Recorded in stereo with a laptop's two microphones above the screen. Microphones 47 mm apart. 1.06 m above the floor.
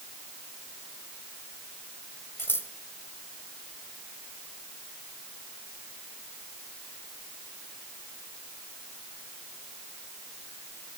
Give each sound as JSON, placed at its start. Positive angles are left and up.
{"t": 2.4, "sound": "scissors", "side_deg": 55, "distance_m": 1.9}